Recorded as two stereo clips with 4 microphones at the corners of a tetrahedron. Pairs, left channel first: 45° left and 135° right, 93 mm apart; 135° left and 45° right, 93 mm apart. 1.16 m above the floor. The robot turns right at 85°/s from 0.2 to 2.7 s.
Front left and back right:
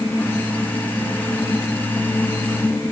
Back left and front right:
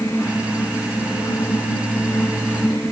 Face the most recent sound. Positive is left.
No sound to turn to.